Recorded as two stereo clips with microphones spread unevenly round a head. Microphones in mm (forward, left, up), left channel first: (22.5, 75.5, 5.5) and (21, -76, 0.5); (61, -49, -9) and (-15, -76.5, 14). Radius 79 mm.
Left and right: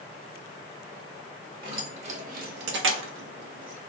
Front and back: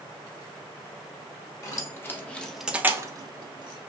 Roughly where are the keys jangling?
Ahead right.